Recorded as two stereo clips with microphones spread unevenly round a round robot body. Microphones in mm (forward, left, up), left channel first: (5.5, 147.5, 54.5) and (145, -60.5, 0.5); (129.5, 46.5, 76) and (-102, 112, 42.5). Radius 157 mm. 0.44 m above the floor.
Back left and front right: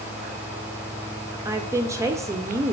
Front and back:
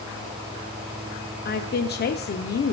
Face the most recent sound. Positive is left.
turn(degrees=-15)